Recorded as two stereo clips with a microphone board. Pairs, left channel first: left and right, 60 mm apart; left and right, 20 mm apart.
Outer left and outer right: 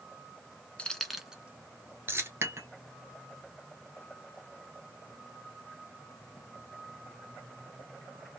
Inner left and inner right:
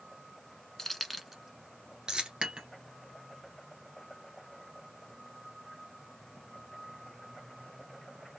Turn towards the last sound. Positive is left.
turn(degrees=-45)  # may be behind; listen again after turning